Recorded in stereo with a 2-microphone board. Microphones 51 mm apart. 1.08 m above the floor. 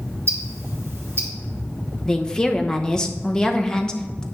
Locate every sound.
0.3 s ticking: 55° right (ahead or behind), 2.5 m
2.0 s a woman speaking: 15° left (ahead or behind), 0.8 m